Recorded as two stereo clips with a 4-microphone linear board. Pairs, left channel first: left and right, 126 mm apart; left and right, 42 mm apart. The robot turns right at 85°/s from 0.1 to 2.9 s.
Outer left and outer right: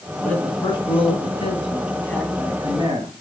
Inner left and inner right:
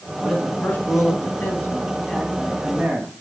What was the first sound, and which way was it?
A man speaking, 5° left.